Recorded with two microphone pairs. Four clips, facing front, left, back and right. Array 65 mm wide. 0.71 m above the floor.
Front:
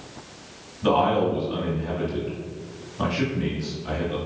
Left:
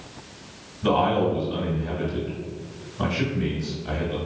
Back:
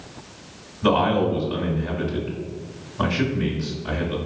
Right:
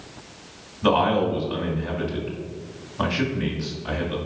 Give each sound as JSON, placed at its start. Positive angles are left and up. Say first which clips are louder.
{"t": 0.8, "sound": "a man speaking", "louder": "right 1 dB, back 1 dB", "azimuth_deg": -115, "distance_m": 1.4}